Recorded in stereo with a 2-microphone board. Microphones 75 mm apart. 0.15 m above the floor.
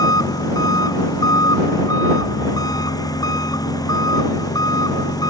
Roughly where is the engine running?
Left.